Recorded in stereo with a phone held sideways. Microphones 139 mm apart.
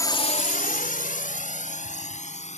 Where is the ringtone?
No ringtone in this recording.